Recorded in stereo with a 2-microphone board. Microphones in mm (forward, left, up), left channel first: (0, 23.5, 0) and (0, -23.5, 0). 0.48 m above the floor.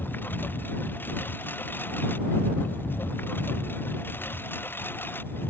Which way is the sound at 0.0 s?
45° left (ahead or behind).